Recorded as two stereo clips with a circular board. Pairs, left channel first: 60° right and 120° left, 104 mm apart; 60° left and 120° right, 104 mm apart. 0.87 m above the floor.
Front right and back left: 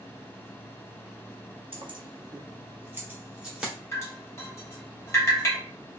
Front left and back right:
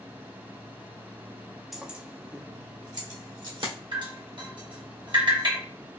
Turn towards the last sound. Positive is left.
turn(degrees=-115)